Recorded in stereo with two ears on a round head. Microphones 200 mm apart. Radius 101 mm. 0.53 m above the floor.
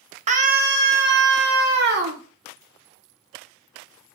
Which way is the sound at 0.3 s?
30° right (ahead or behind).